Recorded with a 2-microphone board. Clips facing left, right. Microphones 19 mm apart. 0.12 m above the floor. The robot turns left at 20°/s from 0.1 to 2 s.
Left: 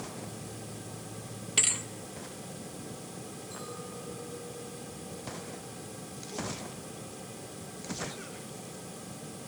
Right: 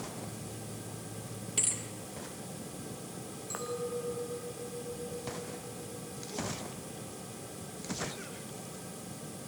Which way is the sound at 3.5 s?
80° right.